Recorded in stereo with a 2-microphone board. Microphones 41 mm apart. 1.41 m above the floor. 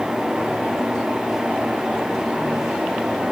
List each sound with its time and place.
Only background noise.